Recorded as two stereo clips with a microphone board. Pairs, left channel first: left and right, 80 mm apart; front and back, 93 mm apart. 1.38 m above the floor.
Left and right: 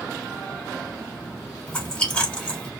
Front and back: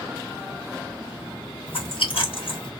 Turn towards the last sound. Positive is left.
turn(degrees=20)